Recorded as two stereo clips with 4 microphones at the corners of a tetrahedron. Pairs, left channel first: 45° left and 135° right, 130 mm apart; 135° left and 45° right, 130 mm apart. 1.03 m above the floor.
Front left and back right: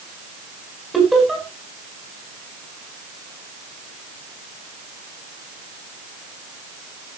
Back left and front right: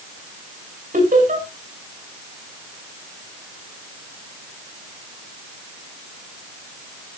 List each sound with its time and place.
0.9 s laughter: 45° right, 5 m